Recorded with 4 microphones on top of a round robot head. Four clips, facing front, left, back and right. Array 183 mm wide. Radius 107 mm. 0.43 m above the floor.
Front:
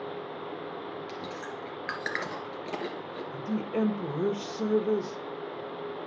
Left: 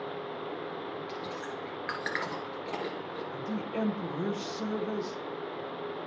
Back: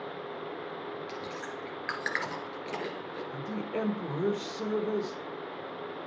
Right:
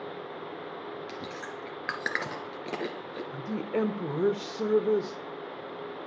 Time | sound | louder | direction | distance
1.1 | chewing | left 1 dB, front 1 dB | 85° right | 2.5 m
3.3 | a woman speaking | right 5 dB, front 4 dB | 80° right | 1.5 m